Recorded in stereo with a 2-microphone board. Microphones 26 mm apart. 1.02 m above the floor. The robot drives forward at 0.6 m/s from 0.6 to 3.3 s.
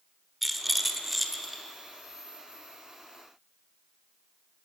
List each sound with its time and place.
0.4 s a rattle: centre (ahead or behind), 1.6 m